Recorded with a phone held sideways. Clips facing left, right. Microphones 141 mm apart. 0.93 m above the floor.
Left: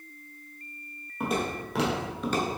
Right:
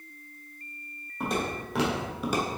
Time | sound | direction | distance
1.2 | footsteps | 5° left (ahead or behind) | 1.8 m